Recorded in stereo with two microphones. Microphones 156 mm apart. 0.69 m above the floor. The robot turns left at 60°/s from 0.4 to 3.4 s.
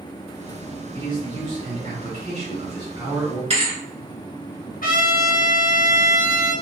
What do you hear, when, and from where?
0.9 s a man speaking: 30° right, 1.9 m; by 3.4 s straight behind, 1.9 m
3.5 s a thud: 40° right (ahead or behind), 1.1 m
4.8 s a trumpet: 65° left (ahead or behind), 0.8 m